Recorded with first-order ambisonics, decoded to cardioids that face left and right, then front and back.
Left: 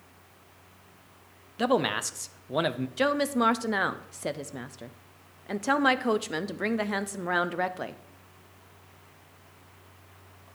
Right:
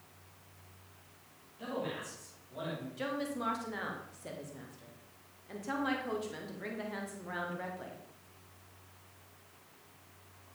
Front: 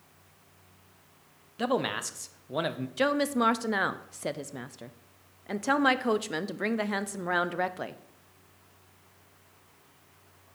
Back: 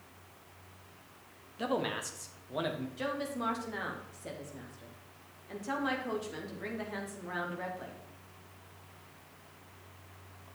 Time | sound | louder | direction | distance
1.6 | a man speaking | left 13 dB, front 5 dB | 70° left | 0.6 m
3.0 | a woman speaking | left 13 dB, front 12 dB | 45° left | 0.5 m